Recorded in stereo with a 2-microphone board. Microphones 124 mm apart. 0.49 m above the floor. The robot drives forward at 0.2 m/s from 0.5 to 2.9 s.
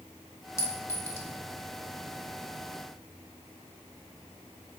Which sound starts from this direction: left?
A clink, at 0.6 s.